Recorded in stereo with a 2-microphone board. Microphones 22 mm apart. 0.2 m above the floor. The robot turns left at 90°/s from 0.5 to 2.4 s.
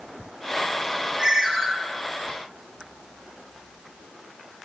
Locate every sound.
1.2 s a ringtone: 25° right (ahead or behind), 0.5 m; by 1.7 s 20° right (ahead or behind), 0.5 m